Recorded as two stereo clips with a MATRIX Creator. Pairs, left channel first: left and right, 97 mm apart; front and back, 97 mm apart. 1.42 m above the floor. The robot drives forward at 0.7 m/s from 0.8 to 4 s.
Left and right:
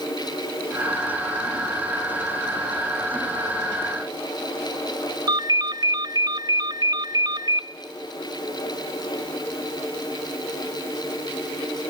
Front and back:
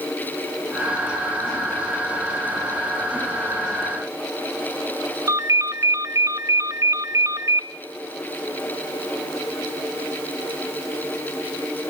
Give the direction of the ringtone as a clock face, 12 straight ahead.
4 o'clock.